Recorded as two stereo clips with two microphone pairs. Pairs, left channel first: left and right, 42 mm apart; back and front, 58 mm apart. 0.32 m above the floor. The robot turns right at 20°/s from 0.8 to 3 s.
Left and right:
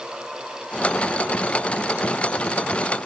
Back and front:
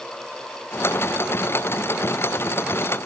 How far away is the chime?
I don't hear a chime.